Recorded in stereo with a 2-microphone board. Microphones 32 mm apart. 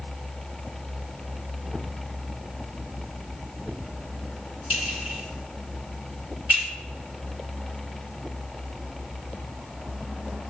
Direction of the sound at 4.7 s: 65° right (ahead or behind).